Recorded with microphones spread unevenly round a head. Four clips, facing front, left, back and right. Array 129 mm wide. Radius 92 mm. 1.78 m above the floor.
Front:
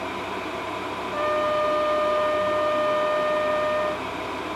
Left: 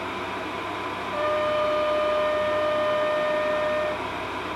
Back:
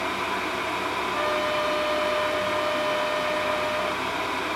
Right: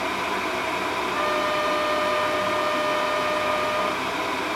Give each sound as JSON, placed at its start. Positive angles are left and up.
{"t": 1.1, "sound": "a trumpet", "azimuth_deg": -5, "distance_m": 1.3}